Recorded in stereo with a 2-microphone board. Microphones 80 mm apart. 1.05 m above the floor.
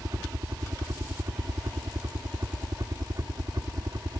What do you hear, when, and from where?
0.0 s a helicopter: 50° right (ahead or behind)